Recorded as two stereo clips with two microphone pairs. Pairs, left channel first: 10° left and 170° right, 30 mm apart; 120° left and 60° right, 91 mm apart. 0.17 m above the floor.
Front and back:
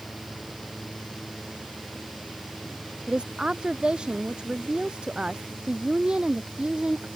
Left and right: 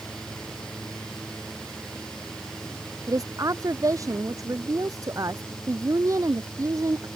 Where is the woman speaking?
110° right.